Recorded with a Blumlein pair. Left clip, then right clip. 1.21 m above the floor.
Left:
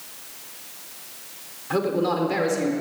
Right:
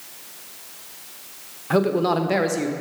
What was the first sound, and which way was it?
A man speaking, 20° right.